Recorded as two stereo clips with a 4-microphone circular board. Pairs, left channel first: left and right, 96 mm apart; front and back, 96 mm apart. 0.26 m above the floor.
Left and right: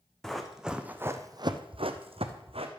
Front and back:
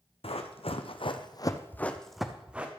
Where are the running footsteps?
5° left, 1.2 m; by 2.7 s 105° right, 1.3 m.